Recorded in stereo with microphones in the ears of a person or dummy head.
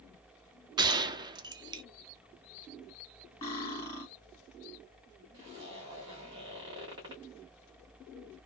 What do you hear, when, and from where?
0.8 s a gunshot: 20° right (ahead or behind), 0.5 m
3.4 s cutlery clinking: 25° left (ahead or behind), 1.2 m
5.3 s a zipper: 20° right (ahead or behind), 1.3 m